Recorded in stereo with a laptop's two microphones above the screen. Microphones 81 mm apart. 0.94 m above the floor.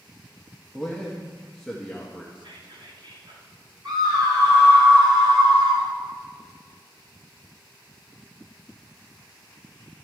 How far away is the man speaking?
About 1.3 m.